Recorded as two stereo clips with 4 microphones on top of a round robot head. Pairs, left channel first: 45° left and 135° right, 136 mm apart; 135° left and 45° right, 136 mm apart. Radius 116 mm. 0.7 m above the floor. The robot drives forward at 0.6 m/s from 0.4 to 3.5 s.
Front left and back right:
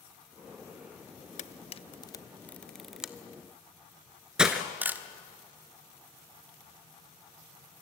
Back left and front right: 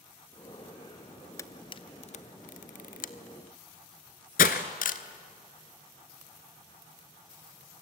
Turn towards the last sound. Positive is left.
turn(degrees=140)